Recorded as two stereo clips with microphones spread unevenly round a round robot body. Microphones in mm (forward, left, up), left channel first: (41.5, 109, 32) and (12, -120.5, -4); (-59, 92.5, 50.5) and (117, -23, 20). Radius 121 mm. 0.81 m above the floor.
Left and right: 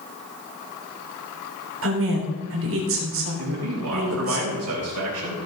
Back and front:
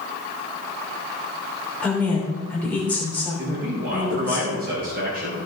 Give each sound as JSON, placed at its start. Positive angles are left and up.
{"t": 1.8, "sound": "a woman speaking", "azimuth_deg": -130, "distance_m": 3.0}
{"t": 3.4, "sound": "a man speaking", "azimuth_deg": -85, "distance_m": 4.5}